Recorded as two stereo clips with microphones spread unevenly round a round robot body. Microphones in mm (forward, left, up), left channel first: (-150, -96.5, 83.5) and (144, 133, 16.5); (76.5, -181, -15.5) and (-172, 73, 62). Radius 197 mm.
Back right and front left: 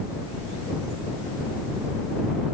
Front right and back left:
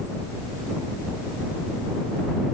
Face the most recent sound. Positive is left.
No sound to turn to.